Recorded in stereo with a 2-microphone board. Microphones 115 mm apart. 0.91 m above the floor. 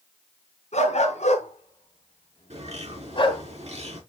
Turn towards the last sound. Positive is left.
turn(degrees=-70)  # may be behind; listen again after turning